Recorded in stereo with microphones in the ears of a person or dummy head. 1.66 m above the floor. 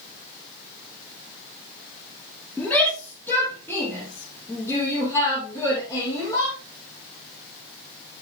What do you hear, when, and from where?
2.6 s a shout: 15° left (ahead or behind), 6 m; by 6.5 s 25° left (ahead or behind), 8 m